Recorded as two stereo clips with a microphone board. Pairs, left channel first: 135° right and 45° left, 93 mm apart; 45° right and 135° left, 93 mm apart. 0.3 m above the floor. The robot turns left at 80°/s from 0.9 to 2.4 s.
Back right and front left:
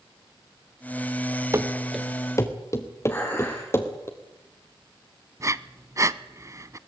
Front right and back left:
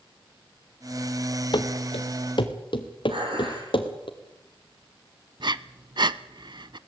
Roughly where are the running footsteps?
Ahead.